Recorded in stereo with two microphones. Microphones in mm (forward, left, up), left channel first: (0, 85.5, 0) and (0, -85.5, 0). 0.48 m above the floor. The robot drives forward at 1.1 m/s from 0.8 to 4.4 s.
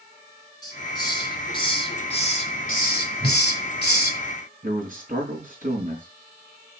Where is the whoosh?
75° right (ahead or behind), 2.5 m.